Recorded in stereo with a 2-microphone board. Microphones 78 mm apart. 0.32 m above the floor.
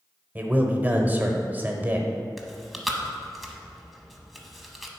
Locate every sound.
0.3 s a man speaking: 25° right (ahead or behind), 0.9 m
2.4 s chewing: centre (ahead or behind), 0.8 m